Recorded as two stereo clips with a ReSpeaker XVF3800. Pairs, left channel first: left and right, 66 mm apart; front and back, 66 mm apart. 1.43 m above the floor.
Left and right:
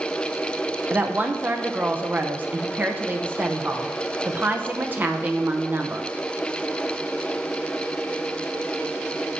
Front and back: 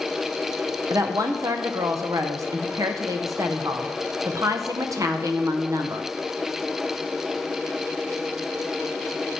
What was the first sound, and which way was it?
A woman speaking, 150° right.